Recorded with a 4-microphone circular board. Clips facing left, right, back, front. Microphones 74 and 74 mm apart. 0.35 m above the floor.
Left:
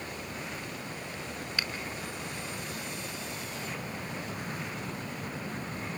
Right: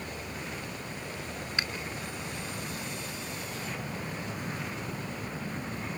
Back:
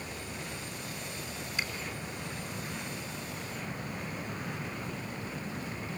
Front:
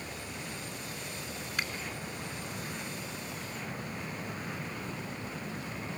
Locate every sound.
1.6 s a finger snap: 25° right, 4 m